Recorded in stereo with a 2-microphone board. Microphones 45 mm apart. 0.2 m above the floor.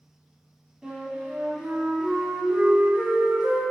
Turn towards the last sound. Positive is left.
turn(degrees=-20)  # may be behind; listen again after turning